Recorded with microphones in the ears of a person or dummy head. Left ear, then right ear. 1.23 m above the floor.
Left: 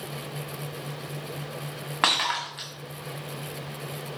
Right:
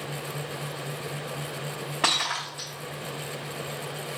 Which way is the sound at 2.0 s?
20° left (ahead or behind).